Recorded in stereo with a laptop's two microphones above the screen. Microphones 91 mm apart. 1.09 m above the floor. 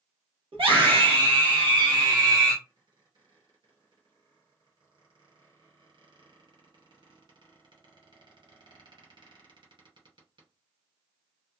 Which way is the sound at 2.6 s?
55° right (ahead or behind).